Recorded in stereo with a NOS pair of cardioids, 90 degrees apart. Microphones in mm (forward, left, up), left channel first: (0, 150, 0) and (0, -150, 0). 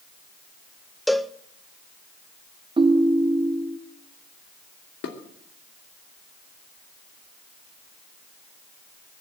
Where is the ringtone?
15° right, 1.0 m.